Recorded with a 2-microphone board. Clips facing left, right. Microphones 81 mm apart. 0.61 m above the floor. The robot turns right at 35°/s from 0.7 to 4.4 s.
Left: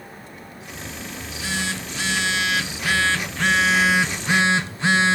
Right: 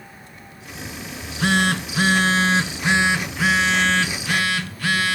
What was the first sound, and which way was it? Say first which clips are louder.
A phone buzzing: right 10 dB; 90° right.